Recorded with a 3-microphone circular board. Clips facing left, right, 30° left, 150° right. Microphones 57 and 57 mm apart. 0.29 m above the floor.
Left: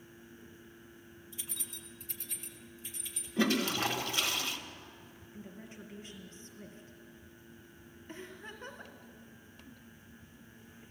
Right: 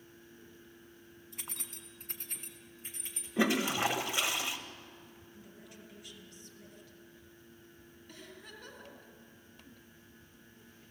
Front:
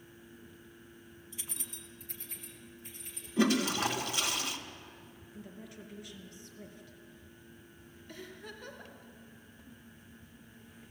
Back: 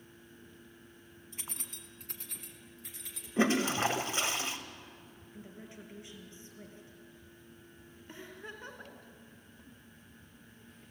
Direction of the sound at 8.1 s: 145° left.